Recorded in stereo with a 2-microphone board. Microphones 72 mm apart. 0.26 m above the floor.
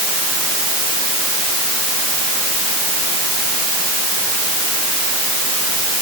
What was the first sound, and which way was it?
Only background noise.